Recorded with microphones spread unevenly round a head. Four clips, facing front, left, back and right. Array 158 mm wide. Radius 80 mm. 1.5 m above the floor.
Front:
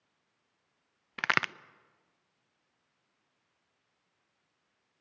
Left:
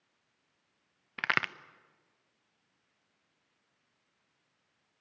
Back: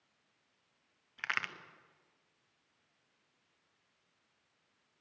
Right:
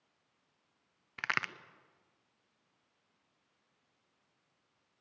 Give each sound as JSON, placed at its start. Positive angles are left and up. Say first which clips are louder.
{"t": 1.2, "sound": "a crack", "louder": "left 4 dB, front 9 dB", "azimuth_deg": 30, "distance_m": 0.6}